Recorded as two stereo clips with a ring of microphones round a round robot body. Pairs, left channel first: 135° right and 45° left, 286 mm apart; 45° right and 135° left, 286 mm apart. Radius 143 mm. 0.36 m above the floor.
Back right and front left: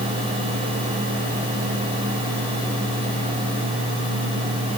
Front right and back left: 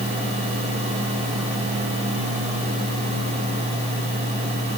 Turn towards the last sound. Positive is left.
No sound to turn to.